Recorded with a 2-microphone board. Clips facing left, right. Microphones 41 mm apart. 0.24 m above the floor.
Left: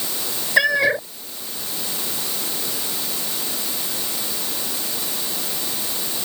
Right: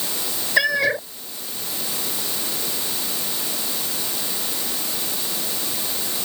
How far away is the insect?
No insect in this recording.